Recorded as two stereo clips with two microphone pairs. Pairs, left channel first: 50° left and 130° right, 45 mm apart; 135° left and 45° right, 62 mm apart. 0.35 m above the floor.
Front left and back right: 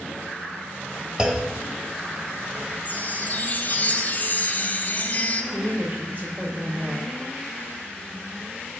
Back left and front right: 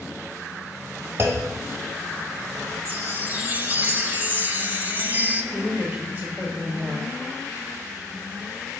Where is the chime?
5° left, 0.7 m.